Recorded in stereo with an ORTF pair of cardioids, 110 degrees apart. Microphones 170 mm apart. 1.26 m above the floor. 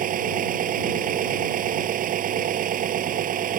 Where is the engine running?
60° right.